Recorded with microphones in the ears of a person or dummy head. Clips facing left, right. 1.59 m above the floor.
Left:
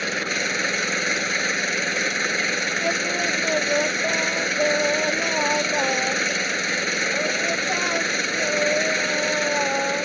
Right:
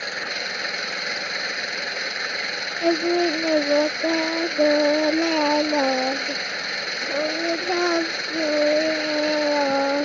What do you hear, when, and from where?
0.0 s an engine running: 45° left (ahead or behind)
2.8 s singing: 45° right (ahead or behind)